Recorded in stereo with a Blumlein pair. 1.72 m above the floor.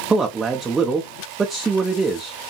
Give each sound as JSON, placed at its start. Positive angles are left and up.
{"t": 0.1, "sound": "a man speaking", "azimuth_deg": -10, "distance_m": 0.6}